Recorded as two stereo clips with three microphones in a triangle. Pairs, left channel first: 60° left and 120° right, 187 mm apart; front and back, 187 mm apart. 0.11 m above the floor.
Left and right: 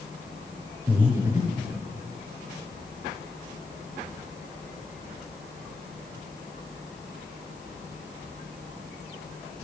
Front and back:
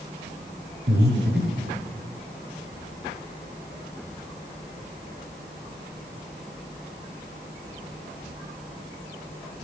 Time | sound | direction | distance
0.9 | breathing | 170° left | 4.5 m